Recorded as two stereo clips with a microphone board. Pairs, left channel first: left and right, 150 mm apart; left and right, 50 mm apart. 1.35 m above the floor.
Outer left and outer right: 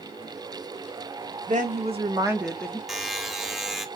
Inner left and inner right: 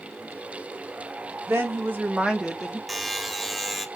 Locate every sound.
1.5 s a woman speaking: 60° right (ahead or behind), 1.4 m; by 2.8 s 15° left (ahead or behind), 1.1 m
2.9 s a buzzer: centre (ahead or behind), 0.6 m